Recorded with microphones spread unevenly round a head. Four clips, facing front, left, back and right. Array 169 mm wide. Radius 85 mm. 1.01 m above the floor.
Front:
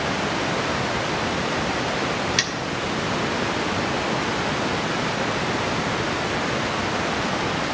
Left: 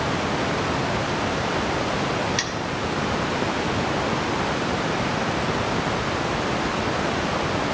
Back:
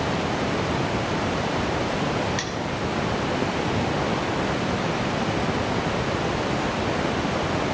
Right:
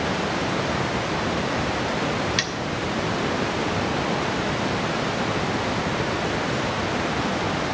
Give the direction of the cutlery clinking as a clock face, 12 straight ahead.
1 o'clock.